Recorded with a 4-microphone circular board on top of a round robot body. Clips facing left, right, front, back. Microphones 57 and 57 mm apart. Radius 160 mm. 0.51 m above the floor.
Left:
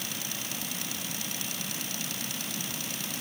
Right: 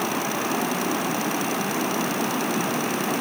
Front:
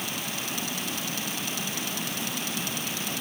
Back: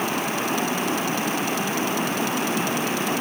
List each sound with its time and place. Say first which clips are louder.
0.0 s running water: right 14 dB, back 10 dB; 125° right